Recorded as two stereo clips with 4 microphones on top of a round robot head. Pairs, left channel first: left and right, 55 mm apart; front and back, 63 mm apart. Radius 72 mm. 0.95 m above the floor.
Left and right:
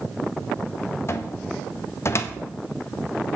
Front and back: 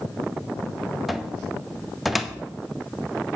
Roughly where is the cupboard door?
Left.